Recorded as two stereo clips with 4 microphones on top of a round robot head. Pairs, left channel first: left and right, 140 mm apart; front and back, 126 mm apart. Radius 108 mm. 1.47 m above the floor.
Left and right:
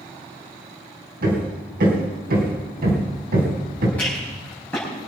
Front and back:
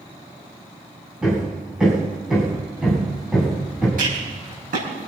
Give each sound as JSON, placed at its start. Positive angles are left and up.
{"t": 1.2, "sound": "hammering", "azimuth_deg": -90, "distance_m": 3.0}
{"t": 4.0, "sound": "a rattle", "azimuth_deg": 175, "distance_m": 4.5}